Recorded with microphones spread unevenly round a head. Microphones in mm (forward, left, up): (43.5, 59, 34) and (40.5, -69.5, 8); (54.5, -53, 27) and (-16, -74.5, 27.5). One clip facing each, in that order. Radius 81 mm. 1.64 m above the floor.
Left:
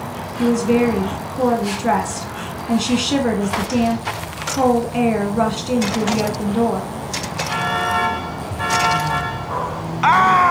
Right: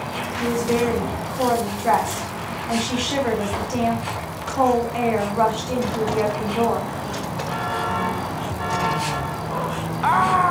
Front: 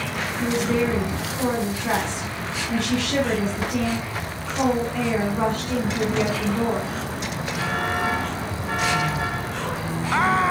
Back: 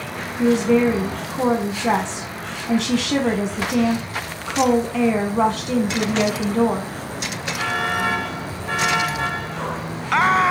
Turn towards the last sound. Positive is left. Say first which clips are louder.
# left 5 dB, back 7 dB
turn(degrees=150)